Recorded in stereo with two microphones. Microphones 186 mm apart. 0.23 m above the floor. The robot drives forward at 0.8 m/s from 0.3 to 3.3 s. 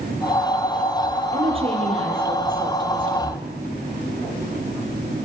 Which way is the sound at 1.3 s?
35° right (ahead or behind).